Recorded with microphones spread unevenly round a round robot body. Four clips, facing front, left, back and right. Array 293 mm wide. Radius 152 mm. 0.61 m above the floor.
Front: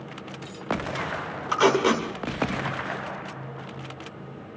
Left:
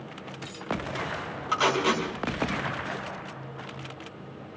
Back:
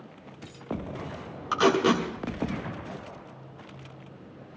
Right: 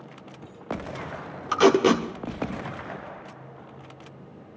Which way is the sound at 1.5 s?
90° right.